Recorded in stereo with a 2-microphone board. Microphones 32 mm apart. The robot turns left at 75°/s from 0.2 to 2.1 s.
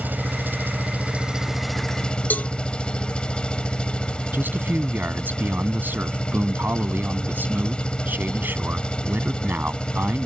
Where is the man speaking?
80° right.